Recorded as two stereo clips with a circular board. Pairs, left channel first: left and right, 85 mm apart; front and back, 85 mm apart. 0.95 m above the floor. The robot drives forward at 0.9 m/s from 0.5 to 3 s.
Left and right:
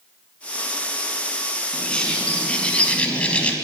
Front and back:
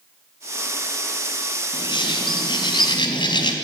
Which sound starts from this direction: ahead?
A bird, at 1.7 s.